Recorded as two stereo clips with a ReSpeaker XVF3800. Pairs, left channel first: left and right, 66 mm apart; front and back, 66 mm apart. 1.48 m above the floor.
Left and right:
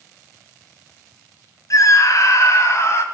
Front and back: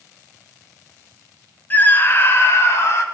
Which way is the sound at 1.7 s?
60° left.